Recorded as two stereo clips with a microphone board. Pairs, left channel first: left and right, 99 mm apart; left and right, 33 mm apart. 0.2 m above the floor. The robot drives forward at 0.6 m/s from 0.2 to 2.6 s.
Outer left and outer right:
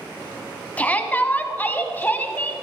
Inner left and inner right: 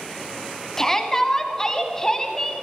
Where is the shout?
15° left (ahead or behind), 1.2 m.